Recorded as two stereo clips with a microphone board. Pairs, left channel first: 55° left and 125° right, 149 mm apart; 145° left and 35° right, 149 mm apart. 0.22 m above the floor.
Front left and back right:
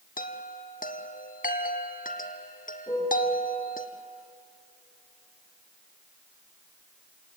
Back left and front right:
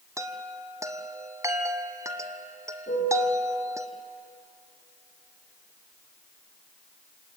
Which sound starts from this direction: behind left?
A piano, at 2.9 s.